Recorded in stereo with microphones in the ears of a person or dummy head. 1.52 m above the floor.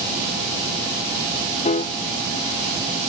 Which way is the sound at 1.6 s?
35° left (ahead or behind).